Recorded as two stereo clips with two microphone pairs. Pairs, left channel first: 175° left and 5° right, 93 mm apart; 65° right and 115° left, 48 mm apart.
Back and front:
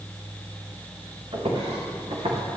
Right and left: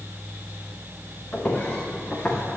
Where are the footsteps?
5° right, 4.5 m; by 2.4 s straight ahead, 4 m.